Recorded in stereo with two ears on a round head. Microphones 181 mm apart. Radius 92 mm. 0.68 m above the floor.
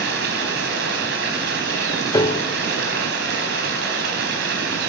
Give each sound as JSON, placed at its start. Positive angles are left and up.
{"t": 0.0, "sound": "running water", "side_deg": -55, "distance_m": 4.0}
{"t": 2.1, "sound": "a piano", "side_deg": 15, "distance_m": 0.5}